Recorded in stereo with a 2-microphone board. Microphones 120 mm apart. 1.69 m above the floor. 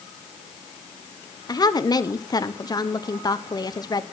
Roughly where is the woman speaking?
Left.